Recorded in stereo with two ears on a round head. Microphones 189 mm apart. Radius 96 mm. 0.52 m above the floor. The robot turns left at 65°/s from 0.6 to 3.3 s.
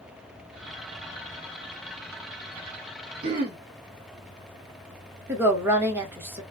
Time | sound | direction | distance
3.2 | throat clearing | 45° right (ahead or behind) | 1.7 m
5.3 | a woman speaking | 10° right (ahead or behind) | 1.0 m